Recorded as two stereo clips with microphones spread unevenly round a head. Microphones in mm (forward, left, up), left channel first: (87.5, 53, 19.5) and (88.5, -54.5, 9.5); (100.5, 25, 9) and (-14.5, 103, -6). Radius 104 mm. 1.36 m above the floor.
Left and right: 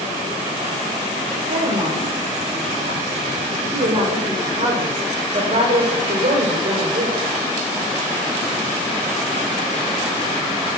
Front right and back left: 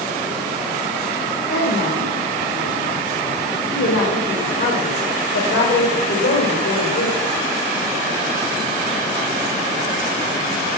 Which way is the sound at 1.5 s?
65° right.